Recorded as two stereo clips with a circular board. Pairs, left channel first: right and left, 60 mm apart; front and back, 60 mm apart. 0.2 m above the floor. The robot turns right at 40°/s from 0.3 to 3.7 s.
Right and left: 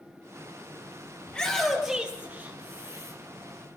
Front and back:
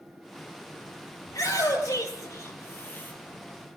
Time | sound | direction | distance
1.3 | a shout | 20° right | 5.5 m